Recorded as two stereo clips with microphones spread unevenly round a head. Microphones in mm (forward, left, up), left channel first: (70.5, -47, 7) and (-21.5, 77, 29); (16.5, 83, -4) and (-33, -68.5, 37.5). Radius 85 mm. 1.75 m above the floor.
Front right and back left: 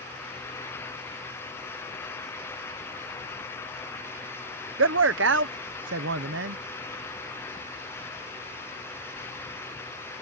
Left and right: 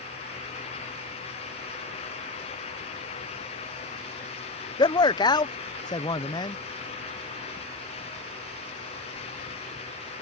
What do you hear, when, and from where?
4.8 s a man speaking: 140° left